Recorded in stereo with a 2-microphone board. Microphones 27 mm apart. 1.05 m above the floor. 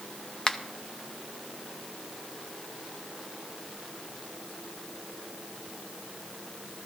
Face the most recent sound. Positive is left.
turn(degrees=25)  # may be behind; listen again after turning